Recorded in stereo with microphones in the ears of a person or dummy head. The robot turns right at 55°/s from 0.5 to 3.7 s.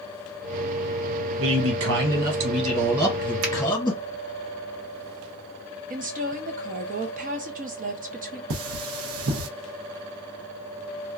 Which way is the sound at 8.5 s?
70° right (ahead or behind).